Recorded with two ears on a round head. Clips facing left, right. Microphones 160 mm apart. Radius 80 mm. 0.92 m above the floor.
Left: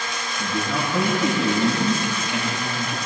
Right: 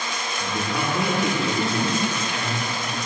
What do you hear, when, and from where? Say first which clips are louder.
0.4 s a man speaking: left 2 dB; 75° left (ahead or behind), 7 m